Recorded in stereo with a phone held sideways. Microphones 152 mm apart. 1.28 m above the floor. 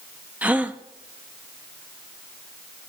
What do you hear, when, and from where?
0.4 s a gasp: 10° right (ahead or behind), 0.6 m